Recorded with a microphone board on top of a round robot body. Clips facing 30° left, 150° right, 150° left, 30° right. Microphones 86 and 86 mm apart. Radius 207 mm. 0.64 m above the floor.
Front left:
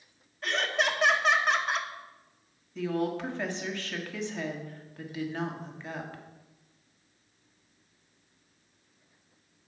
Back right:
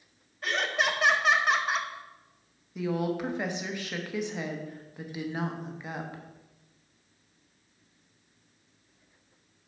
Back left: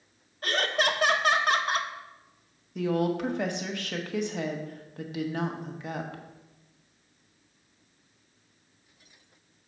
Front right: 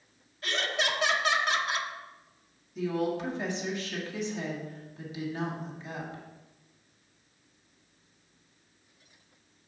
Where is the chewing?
No chewing in this recording.